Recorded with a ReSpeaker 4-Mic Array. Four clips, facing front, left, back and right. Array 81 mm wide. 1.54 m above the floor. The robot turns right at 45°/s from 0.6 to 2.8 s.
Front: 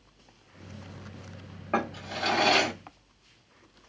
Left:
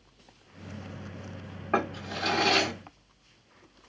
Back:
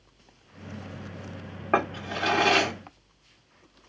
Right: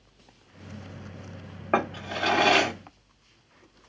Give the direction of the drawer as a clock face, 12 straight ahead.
4 o'clock.